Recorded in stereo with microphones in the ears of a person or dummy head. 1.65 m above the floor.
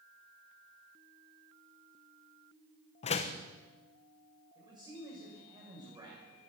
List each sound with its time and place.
3.0 s a door slam: 40° left (ahead or behind), 0.9 m
4.5 s a man speaking: 15° right (ahead or behind), 7 m